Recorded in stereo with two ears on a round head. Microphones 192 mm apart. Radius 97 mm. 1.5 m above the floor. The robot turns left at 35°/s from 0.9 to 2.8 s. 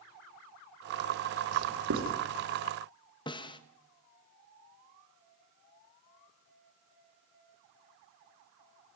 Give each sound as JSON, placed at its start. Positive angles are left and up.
{"t": 1.5, "sound": "writing", "side_deg": -90, "distance_m": 3.5}
{"t": 3.3, "sound": "a snare drum", "side_deg": 20, "distance_m": 1.3}